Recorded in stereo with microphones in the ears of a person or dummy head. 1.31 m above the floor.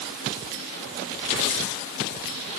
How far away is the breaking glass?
I don't hear breaking glass.